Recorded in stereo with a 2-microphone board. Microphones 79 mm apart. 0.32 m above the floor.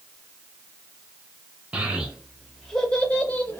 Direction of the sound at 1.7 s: 20° right (ahead or behind).